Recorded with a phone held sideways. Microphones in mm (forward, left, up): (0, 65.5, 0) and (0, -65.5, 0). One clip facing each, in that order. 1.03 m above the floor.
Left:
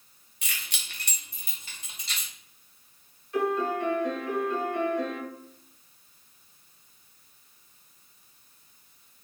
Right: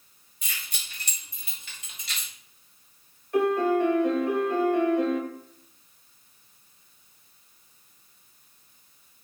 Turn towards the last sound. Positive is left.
turn(degrees=-55)  # may be behind; listen again after turning